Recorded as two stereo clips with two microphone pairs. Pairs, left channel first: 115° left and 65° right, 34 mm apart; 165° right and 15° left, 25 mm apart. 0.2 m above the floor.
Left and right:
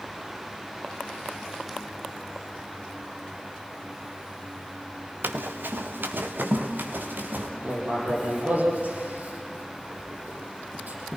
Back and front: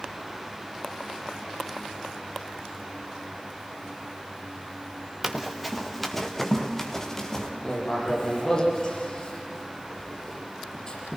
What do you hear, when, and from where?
5.2 s running footsteps: 65° right, 2.0 m; by 7.5 s 95° right, 4.5 m
7.6 s writing: 105° right, 8 m